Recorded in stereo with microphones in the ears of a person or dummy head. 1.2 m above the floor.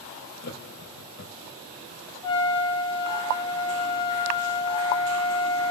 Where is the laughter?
60° left (ahead or behind), 0.6 m.